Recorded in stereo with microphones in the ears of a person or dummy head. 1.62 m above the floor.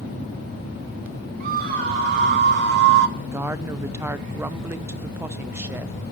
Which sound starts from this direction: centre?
A woman speaking, at 3.2 s.